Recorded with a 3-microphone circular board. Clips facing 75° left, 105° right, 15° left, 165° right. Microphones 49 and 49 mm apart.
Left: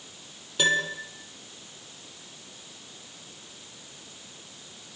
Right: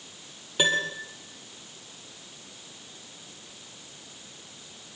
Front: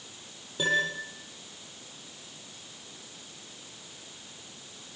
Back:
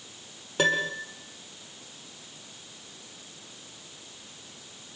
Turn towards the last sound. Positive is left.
turn(degrees=-175)